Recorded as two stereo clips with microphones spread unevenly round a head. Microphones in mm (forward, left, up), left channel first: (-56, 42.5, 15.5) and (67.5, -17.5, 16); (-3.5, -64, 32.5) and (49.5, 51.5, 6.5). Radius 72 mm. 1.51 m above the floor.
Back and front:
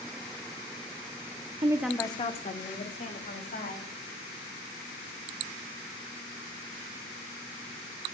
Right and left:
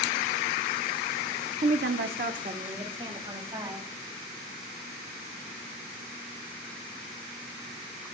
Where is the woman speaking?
25° left, 0.7 m; by 3.9 s 130° left, 3.5 m.